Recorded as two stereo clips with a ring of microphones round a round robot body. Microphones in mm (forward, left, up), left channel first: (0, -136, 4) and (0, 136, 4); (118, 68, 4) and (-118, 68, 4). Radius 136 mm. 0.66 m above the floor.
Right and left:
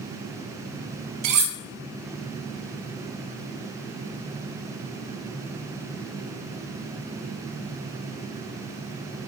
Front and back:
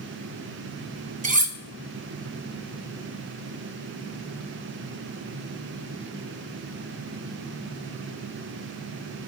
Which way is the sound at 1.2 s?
120° left.